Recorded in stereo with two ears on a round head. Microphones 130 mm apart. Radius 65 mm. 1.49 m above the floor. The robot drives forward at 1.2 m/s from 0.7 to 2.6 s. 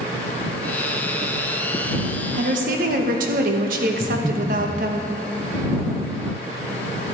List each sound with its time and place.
2.3 s a woman speaking: 55° right (ahead or behind), 1.4 m; by 5.0 s 65° right (ahead or behind), 1.3 m
4.0 s breathing: 40° right (ahead or behind), 3 m